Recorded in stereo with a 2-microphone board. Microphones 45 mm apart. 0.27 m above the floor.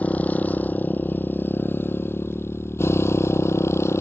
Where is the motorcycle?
35° left (ahead or behind); by 4.0 s 85° left.